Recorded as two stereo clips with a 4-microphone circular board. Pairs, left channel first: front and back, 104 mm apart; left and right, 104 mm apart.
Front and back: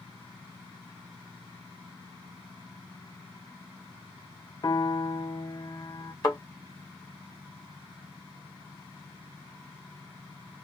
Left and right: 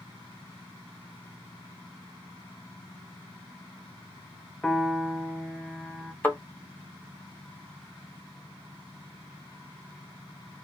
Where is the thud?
25° left, 1.2 m.